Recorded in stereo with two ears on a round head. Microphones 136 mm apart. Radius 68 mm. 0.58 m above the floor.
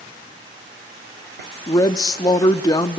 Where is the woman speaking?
25° left (ahead or behind), 0.6 m.